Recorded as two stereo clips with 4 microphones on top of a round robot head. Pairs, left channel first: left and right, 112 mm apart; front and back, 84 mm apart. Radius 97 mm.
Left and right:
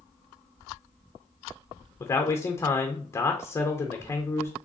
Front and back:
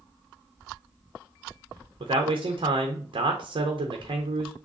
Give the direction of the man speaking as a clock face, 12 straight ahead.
7 o'clock.